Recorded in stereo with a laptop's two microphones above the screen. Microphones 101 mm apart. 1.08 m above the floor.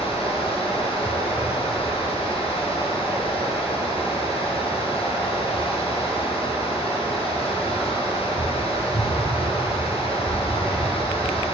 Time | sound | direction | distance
0.0 | running water | 75° left (ahead or behind) | 4 m